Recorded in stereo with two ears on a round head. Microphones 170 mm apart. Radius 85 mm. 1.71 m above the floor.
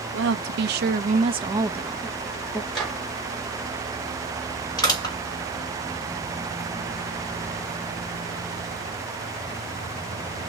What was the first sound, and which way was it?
A woman speaking, 70° right (ahead or behind).